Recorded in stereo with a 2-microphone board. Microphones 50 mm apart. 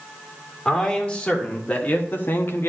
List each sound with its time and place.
0.7 s a man speaking: 20° left (ahead or behind), 2.0 m; by 2.7 s 55° left (ahead or behind), 0.8 m